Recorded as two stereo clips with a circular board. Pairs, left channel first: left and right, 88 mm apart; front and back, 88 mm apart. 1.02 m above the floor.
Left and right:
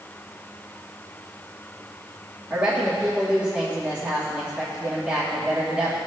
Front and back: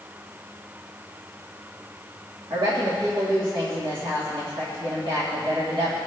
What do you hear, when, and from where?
2.5 s a woman speaking: 165° right, 1.8 m